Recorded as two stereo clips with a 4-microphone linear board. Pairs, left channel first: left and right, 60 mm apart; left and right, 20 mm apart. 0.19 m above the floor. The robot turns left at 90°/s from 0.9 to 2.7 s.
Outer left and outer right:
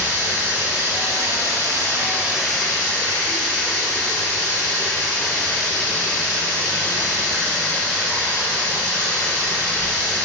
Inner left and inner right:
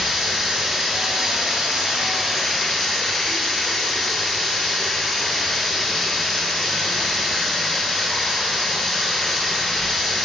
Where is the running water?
40° right, 1.2 m; by 10.3 s 160° left, 1.2 m.